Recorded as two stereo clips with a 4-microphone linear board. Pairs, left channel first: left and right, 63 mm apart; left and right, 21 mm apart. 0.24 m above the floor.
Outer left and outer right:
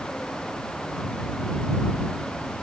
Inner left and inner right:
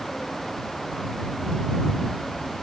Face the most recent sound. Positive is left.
No sound to turn to.